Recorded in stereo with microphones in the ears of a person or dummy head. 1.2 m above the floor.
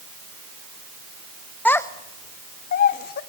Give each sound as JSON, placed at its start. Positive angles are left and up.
{"t": 1.6, "sound": "a child speaking", "side_deg": 5, "distance_m": 0.7}